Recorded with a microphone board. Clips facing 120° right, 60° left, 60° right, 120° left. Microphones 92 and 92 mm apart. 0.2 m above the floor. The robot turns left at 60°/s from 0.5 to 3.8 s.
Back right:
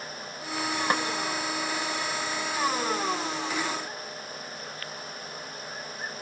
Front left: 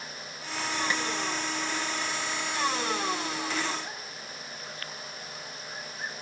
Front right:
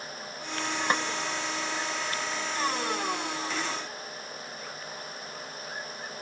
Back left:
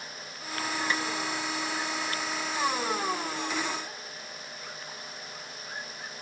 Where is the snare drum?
95° right; by 1.0 s 105° right.